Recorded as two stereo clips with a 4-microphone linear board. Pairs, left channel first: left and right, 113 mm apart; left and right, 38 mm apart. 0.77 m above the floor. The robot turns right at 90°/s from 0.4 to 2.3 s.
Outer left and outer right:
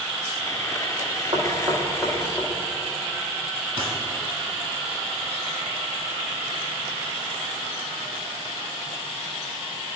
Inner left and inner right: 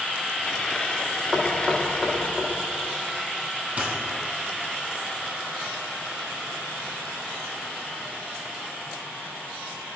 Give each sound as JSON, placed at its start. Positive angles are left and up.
{"t": 1.3, "sound": "knocking", "side_deg": -45, "distance_m": 1.2}
{"t": 3.8, "sound": "a dropped coin", "side_deg": -30, "distance_m": 2.5}